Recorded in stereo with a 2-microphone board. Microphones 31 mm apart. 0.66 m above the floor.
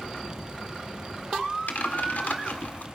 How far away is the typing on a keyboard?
About 1.7 m.